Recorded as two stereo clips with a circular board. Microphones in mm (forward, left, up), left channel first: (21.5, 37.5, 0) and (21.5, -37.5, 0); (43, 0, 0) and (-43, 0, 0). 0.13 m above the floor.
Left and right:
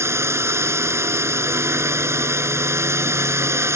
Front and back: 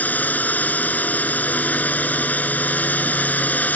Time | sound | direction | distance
0.0 | a drone | 65° right | ?